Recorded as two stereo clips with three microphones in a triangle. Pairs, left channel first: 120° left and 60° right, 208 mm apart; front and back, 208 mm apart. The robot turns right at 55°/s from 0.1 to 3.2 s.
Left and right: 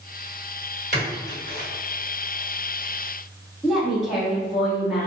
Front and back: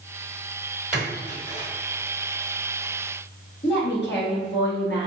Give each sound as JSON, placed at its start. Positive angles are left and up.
{"t": 0.9, "sound": "a splash", "azimuth_deg": -100, "distance_m": 1.8}
{"t": 3.6, "sound": "a woman speaking", "azimuth_deg": 30, "distance_m": 1.1}